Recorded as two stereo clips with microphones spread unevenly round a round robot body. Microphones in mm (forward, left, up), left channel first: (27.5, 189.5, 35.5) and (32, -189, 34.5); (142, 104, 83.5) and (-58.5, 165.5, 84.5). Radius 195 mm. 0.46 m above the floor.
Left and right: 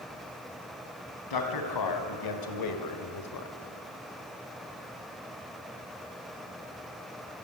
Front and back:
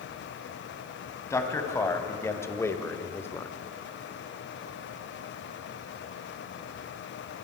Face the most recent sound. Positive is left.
turn(degrees=60)